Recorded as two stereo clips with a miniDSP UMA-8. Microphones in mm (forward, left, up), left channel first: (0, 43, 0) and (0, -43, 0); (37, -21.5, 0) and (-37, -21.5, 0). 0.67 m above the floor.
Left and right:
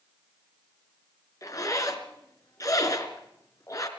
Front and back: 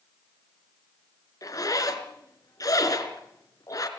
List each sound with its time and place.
1.4 s a zipper: 40° left, 3 m